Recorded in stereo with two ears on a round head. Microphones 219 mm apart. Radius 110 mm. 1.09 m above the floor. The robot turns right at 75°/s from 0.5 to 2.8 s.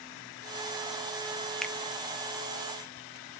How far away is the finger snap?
About 0.7 m.